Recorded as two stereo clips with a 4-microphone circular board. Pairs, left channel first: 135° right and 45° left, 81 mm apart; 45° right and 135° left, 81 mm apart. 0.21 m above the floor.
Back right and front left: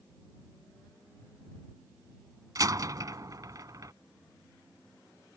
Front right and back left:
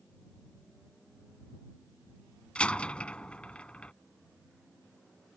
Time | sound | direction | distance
2.5 | a door slam | 30° left | ?